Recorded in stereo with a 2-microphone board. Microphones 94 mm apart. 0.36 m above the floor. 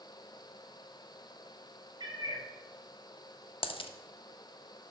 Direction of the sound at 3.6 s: 75° left (ahead or behind).